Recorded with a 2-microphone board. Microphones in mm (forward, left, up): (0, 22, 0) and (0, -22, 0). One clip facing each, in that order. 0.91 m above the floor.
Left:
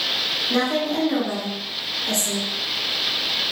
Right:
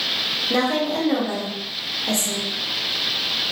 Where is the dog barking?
I don't hear a dog barking.